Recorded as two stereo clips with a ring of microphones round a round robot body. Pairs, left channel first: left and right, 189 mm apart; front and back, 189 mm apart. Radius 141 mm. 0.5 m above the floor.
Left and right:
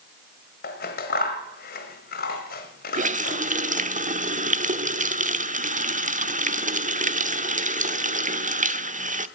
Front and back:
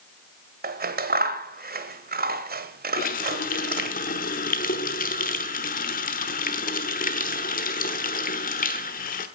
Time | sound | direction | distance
0.6 | scissors | 140° left | 1.4 m
2.9 | a running tap | 45° right | 1.0 m